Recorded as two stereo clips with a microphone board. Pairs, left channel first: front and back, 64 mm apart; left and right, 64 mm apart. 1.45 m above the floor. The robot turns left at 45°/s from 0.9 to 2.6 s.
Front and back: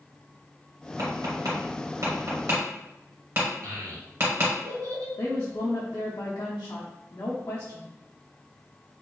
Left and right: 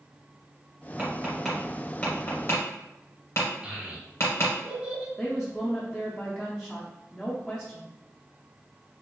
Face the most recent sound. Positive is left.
turn(degrees=15)